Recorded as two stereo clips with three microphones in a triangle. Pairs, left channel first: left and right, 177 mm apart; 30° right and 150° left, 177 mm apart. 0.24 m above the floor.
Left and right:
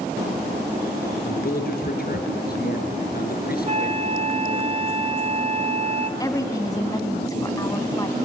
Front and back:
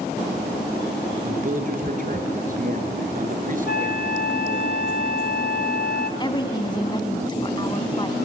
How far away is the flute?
About 1.0 m.